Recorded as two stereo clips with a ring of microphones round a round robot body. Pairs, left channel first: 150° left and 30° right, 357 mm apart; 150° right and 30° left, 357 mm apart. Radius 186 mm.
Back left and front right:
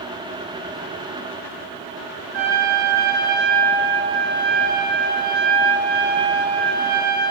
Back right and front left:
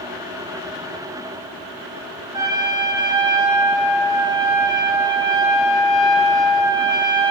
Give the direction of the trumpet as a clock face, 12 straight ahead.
12 o'clock.